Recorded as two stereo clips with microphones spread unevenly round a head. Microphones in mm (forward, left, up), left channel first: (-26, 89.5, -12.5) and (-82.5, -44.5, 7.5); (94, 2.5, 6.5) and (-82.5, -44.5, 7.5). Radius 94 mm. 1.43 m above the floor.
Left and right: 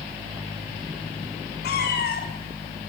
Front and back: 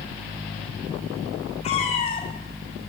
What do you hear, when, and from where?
1.6 s a cat meowing: 75° left, 5.5 m